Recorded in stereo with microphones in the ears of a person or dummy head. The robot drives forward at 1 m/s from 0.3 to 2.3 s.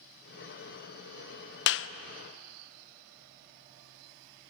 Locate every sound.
1.7 s a clap: 55° left (ahead or behind), 0.7 m; by 1.9 s 60° left (ahead or behind), 0.6 m